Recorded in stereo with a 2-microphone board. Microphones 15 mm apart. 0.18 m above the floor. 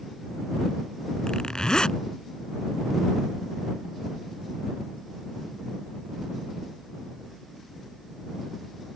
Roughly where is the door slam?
I don't hear a door slam.